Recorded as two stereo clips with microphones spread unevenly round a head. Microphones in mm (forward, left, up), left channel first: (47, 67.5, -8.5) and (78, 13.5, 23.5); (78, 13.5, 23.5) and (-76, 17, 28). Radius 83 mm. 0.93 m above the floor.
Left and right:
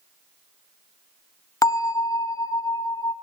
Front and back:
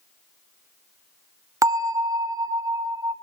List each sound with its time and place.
1.6 s a bell: 110° left, 1.4 m